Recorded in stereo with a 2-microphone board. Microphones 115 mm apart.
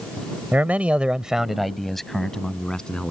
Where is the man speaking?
15° right (ahead or behind); by 3.1 s 5° left (ahead or behind).